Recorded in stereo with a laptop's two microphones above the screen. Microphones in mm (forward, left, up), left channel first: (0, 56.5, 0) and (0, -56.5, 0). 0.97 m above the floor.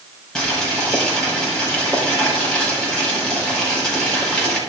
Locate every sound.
0.3 s boiling: 5° left (ahead or behind), 5 m